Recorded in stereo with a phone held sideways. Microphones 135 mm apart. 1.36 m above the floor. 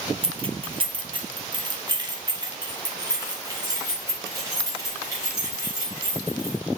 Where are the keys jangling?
45° right (ahead or behind), 0.8 m; by 6.6 s 25° right (ahead or behind), 4 m.